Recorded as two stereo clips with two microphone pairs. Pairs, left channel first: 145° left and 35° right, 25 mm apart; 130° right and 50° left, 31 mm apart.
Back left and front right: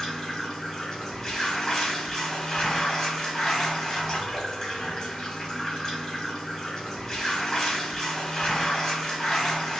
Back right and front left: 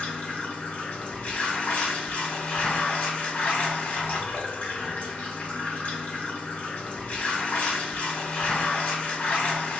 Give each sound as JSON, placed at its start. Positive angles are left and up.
{"t": 0.0, "sound": "running water", "azimuth_deg": -160, "distance_m": 1.2}